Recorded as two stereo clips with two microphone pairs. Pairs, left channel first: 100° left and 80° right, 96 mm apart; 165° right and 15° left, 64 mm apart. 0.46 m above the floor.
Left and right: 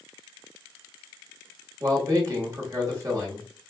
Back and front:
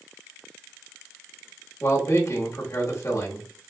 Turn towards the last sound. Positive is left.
turn(degrees=-130)